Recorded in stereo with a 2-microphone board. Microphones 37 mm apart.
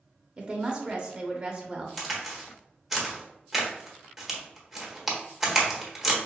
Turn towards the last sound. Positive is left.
turn(degrees=0)  # may be behind; listen again after turning